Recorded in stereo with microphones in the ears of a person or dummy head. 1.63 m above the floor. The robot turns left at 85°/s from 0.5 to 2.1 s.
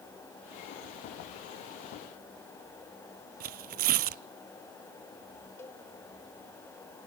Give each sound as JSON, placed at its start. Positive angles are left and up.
{"t": 3.4, "sound": "tearing paper", "side_deg": -50, "distance_m": 0.5}
{"t": 5.6, "sound": "a cowbell", "side_deg": 15, "distance_m": 1.9}